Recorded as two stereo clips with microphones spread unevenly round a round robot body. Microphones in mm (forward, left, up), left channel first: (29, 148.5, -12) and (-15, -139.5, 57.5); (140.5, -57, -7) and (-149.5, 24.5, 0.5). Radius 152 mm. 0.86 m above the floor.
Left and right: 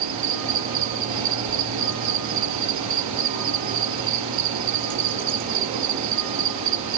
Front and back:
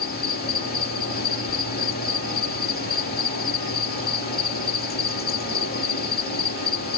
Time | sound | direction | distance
0.0 | an insect | 70° right | ?